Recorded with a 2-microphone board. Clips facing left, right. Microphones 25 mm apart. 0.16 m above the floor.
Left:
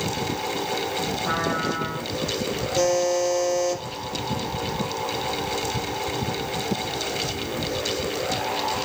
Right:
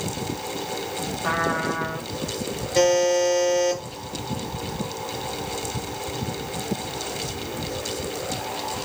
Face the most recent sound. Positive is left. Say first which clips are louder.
# right 3 dB
turn(degrees=-60)  # may be behind; listen again after turning